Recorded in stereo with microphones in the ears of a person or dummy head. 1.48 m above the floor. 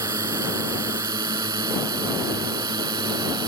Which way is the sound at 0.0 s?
20° right (ahead or behind).